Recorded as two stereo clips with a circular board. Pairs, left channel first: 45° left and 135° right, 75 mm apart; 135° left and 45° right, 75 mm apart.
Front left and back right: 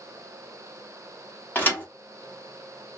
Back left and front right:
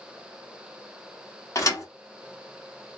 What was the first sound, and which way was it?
A thud, 105° left.